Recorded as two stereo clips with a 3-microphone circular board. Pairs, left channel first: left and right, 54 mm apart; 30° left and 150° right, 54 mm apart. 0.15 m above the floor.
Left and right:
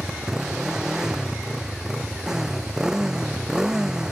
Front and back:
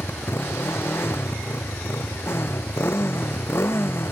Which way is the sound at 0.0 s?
10° right.